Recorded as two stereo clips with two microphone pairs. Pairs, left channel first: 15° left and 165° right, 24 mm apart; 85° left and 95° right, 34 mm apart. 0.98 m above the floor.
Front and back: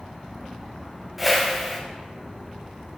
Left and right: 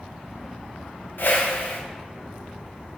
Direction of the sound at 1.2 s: 105° left.